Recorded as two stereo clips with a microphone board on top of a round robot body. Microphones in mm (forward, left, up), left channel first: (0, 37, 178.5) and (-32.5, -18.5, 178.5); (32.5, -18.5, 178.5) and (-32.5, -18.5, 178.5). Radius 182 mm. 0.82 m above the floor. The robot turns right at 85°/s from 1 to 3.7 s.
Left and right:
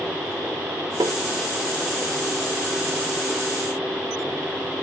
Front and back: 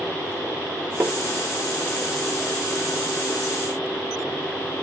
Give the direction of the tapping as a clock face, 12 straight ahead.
4 o'clock.